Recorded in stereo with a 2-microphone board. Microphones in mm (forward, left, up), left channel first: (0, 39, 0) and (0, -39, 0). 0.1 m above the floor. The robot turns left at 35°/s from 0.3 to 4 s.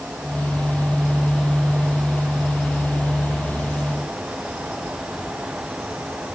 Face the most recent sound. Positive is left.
No sound to turn to.